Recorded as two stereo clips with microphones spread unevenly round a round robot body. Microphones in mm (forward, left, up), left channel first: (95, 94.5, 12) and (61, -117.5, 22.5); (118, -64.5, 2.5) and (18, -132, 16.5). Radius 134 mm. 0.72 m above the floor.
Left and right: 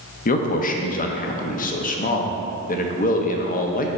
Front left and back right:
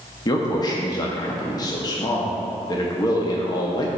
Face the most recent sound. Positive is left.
turn(degrees=65)